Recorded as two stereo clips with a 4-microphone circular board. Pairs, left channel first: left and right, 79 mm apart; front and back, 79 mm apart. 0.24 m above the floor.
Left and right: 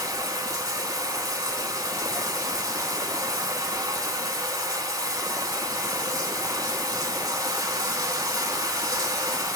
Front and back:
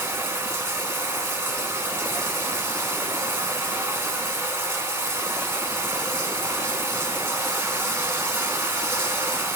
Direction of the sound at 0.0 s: 120° right.